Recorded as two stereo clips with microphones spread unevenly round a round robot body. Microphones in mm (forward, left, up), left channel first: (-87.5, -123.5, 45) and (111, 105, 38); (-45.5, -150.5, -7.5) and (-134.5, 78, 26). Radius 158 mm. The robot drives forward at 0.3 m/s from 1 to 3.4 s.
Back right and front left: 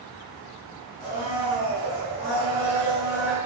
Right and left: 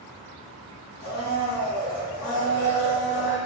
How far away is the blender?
About 1.4 m.